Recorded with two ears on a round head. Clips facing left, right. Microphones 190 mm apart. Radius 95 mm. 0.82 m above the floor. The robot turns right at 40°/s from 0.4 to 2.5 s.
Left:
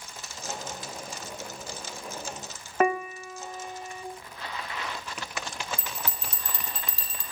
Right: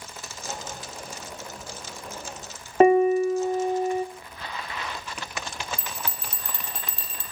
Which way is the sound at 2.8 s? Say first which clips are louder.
Right 10 dB; 25° right (ahead or behind).